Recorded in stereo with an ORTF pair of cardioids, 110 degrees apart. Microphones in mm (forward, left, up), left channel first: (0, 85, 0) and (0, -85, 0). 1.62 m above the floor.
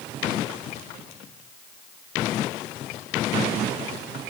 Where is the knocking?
I don't hear knocking.